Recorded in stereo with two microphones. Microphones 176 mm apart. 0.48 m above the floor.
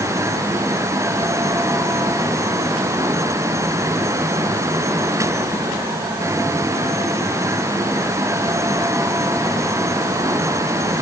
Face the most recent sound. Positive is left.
No sound to turn to.